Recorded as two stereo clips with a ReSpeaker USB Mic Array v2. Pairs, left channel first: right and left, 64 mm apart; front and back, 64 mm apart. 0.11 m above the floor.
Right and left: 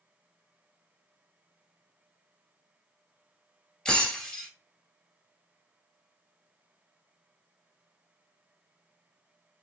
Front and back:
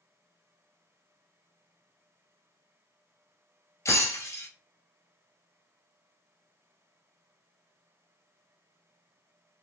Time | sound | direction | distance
3.9 | breaking glass | 15° right | 1.4 m